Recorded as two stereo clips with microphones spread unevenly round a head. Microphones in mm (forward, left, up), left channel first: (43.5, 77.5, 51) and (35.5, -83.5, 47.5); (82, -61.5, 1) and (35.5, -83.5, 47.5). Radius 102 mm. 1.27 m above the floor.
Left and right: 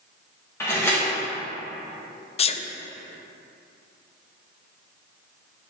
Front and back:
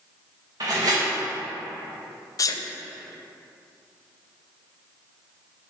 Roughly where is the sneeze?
Ahead left.